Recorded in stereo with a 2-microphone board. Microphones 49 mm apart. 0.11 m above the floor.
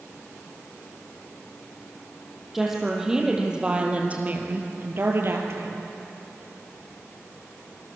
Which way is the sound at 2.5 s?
5° right (ahead or behind).